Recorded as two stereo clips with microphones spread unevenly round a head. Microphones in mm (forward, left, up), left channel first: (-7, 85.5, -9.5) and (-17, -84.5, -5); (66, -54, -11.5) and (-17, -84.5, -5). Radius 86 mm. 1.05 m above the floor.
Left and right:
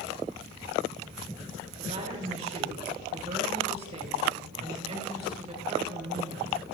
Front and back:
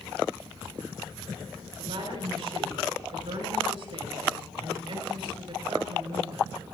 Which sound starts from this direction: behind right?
A woman speaking, at 1.8 s.